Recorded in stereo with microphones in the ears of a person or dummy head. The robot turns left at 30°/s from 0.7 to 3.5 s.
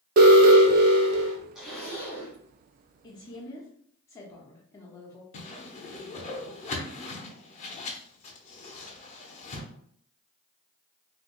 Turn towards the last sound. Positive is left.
turn(degrees=35)  # may be behind; listen again after turning